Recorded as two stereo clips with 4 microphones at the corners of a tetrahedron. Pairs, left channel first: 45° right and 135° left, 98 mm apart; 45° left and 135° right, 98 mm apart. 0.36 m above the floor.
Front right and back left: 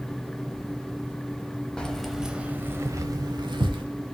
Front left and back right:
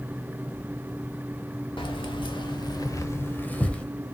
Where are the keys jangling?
35° left, 1.1 m; by 3.9 s 125° left, 1.1 m.